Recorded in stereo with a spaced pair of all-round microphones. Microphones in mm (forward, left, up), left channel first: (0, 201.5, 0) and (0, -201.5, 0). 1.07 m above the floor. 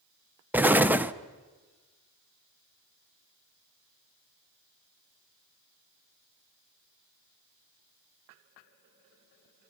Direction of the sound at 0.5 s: 5° right (ahead or behind).